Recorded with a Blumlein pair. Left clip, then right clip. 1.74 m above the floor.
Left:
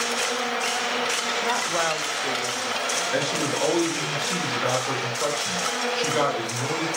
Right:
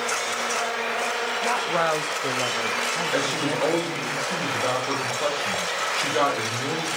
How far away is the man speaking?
About 6 m.